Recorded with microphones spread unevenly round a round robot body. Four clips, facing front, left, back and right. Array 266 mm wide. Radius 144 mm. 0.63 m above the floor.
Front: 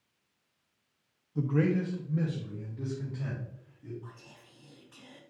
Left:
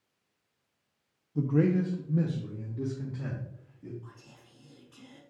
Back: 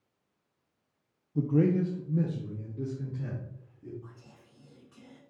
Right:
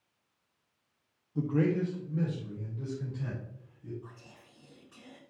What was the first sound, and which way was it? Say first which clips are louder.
A man speaking: left 2 dB, back 3 dB; 170° left.